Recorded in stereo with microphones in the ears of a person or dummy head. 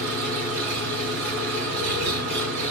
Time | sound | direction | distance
0.0 | an engine running | 60° right (ahead or behind) | 3.5 m